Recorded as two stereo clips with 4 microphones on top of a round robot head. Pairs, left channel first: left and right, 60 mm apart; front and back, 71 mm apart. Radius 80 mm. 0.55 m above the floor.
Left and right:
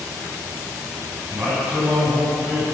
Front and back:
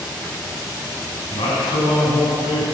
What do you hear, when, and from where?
1.3 s a man speaking: 25° right, 5 m